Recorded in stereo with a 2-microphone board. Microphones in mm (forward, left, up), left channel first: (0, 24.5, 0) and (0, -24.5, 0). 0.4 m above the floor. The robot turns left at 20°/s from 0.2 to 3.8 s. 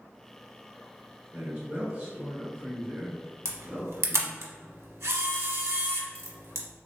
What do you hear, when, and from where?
1.3 s a man speaking: 20° right (ahead or behind), 0.9 m; by 4.5 s 15° right (ahead or behind), 0.9 m
3.5 s a camera shutter: 80° right, 0.6 m; by 6.7 s 75° right (ahead or behind), 0.6 m